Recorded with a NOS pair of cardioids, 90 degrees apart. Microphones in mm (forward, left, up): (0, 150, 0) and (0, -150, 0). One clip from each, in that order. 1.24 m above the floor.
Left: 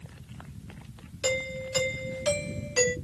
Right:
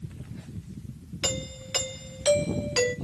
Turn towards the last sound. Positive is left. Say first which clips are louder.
# left 3 dB
turn(degrees=-60)